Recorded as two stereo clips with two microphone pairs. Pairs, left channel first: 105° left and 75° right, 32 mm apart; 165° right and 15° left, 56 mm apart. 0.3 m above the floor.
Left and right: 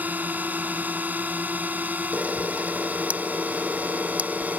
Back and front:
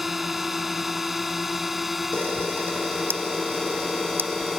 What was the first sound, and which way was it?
A drone, 70° right.